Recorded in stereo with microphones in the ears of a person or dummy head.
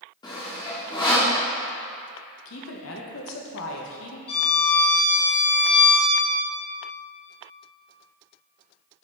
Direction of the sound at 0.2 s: 20° left (ahead or behind).